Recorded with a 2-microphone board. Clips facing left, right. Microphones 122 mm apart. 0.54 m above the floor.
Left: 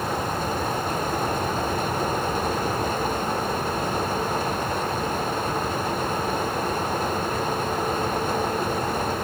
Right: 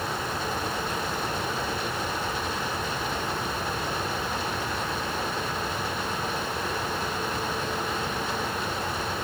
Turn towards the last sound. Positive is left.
No sound to turn to.